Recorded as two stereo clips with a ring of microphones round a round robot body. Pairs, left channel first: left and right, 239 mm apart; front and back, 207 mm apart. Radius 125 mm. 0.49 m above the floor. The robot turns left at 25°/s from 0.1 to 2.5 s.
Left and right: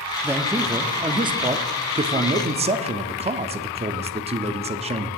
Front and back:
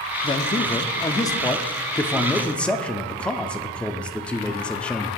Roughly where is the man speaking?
Ahead.